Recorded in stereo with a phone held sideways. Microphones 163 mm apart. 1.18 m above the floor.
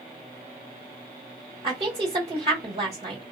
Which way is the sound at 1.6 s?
40° right (ahead or behind).